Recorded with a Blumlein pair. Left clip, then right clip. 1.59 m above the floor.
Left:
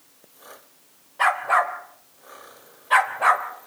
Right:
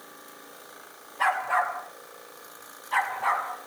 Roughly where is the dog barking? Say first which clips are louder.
Left 5 dB; ahead left.